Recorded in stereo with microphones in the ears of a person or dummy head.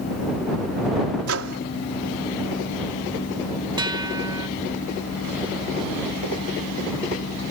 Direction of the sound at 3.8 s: 20° right (ahead or behind).